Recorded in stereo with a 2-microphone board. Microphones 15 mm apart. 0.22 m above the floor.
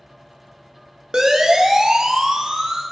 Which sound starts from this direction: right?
A siren, at 1.1 s.